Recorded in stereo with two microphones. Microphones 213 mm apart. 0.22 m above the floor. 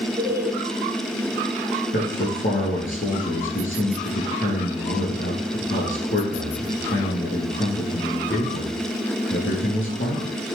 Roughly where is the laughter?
Centre.